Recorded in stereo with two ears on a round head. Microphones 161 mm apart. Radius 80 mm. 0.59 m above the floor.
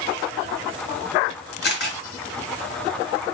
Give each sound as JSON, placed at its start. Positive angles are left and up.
{"t": 1.6, "sound": "a camera shutter", "side_deg": 60, "distance_m": 2.5}